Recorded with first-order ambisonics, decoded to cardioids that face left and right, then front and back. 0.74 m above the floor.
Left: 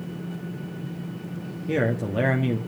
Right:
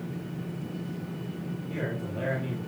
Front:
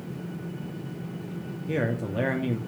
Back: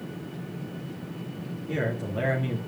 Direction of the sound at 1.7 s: 65° left.